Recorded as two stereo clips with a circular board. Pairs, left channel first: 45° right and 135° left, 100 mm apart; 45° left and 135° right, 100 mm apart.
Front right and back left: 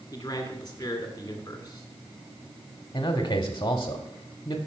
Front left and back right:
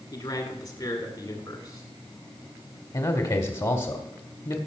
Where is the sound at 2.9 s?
5° left, 1.4 m.